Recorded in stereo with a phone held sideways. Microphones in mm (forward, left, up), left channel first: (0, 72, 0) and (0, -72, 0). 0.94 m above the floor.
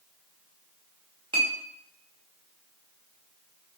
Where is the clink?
35° right (ahead or behind), 0.9 m.